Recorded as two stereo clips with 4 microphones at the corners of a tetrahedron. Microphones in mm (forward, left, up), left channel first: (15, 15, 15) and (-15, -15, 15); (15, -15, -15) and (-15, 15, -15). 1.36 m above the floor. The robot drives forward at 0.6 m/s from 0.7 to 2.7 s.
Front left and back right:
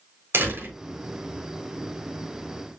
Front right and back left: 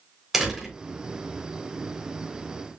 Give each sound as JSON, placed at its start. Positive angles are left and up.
{"t": 0.3, "sound": "a door slam", "azimuth_deg": -145, "distance_m": 3.5}